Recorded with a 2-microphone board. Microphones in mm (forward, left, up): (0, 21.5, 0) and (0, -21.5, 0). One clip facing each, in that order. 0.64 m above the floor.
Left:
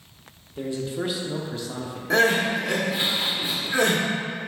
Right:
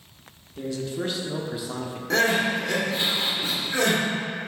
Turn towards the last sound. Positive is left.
turn(degrees=15)  # may be behind; listen again after turning